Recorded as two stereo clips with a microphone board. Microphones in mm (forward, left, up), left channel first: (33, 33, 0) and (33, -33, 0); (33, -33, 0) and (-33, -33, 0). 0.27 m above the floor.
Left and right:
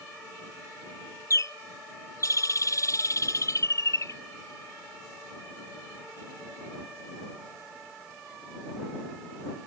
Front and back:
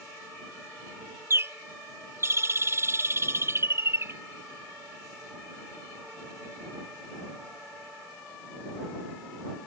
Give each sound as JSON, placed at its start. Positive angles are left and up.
{"t": 1.3, "sound": "a bird", "azimuth_deg": 130}